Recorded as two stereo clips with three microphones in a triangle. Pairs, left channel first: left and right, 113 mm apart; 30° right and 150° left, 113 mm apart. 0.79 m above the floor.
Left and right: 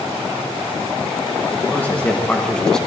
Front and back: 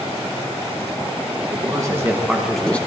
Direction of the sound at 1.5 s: 155° left.